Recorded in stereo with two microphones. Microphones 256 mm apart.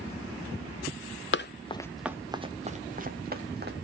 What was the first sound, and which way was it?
Running footsteps, 50° left (ahead or behind).